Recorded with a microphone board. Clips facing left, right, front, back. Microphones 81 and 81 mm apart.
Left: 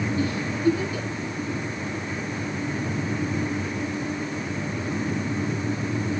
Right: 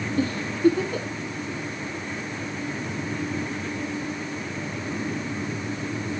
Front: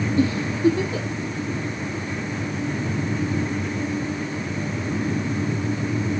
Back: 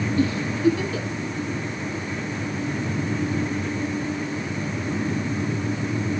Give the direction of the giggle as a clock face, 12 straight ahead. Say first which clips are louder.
Right 3 dB, front 3 dB; 2 o'clock.